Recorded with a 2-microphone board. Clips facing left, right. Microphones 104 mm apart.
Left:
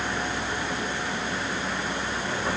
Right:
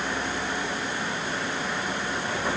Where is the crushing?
No crushing in this recording.